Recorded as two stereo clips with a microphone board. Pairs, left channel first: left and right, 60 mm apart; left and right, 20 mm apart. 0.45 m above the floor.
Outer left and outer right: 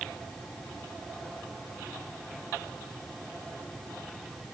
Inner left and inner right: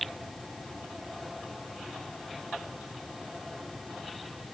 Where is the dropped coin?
No dropped coin in this recording.